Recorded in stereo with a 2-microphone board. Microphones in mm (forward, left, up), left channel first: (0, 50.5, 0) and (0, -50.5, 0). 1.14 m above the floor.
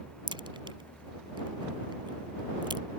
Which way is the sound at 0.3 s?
50° right (ahead or behind).